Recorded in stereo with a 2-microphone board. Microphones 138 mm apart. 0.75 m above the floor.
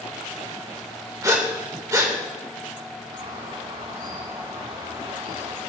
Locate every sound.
1.2 s breathing: 25° right (ahead or behind), 1.7 m
3.1 s a bird: 45° right (ahead or behind), 4.5 m